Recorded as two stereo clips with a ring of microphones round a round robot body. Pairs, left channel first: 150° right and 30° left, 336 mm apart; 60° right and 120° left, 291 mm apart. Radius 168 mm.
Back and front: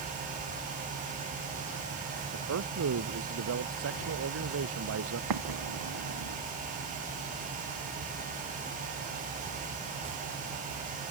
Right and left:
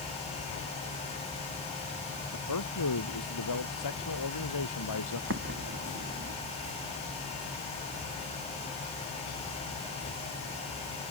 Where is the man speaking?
20° right.